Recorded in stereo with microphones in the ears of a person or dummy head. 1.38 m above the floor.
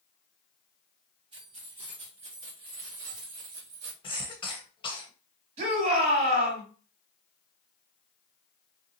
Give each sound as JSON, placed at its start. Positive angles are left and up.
{"t": 1.3, "sound": "keys jangling", "side_deg": -35, "distance_m": 2.5}
{"t": 4.0, "sound": "a cough", "side_deg": 30, "distance_m": 1.0}
{"t": 5.6, "sound": "a shout", "side_deg": -35, "distance_m": 3.5}